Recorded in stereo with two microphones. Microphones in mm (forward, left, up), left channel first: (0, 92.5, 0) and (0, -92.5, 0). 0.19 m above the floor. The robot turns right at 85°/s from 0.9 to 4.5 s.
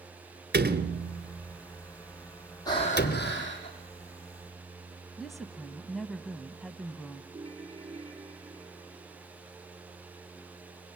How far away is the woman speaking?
About 1.0 m.